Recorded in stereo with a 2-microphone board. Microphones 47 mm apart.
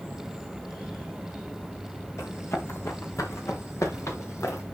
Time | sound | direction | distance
2.2 | running footsteps | 85° left | 4 m